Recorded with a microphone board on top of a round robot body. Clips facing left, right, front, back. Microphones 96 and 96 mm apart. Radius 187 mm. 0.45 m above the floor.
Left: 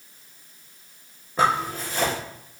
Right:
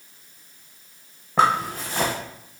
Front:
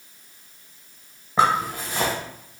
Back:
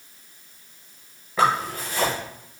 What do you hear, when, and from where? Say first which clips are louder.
1.4 s a zipper: right 2 dB, front 1 dB; 65° right, 1.0 m